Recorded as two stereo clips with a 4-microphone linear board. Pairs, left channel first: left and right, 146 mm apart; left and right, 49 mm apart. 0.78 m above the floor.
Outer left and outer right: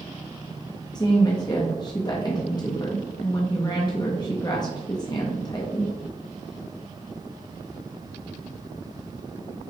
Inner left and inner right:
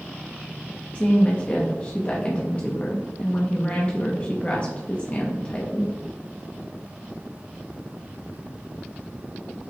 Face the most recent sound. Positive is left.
turn(degrees=30)  # may be behind; listen again after turning